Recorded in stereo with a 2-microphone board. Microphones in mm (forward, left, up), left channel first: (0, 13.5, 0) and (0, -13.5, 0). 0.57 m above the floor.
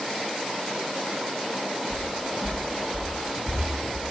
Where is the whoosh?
I don't hear a whoosh.